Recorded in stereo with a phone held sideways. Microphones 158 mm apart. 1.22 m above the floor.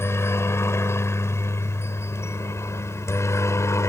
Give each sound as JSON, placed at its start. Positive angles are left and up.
{"t": 0.0, "sound": "a helicopter", "side_deg": 15}